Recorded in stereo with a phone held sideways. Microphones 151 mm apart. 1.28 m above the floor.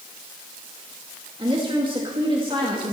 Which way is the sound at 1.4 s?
35° right (ahead or behind).